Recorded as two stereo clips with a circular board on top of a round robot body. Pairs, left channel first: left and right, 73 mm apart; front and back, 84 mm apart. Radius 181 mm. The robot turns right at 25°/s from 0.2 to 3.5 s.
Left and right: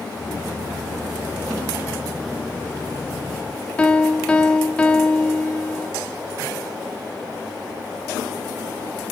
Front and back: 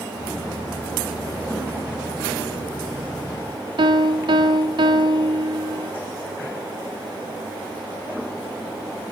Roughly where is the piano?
Behind.